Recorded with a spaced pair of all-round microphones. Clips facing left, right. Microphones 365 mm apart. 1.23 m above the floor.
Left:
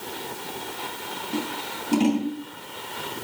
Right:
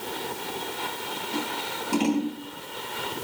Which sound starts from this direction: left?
Scissors, at 1.3 s.